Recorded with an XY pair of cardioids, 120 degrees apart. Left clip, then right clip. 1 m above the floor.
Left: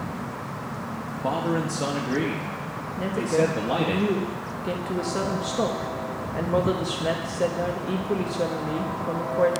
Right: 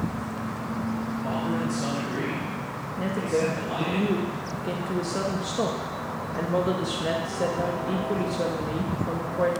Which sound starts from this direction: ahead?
A woman speaking, at 3.0 s.